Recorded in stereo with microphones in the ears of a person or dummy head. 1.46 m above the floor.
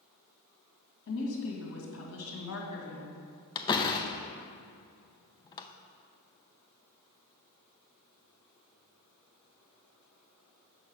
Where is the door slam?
20° left (ahead or behind), 0.5 m.